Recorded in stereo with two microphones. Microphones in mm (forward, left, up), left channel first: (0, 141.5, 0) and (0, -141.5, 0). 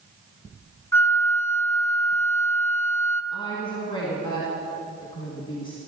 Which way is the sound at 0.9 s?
10° left (ahead or behind).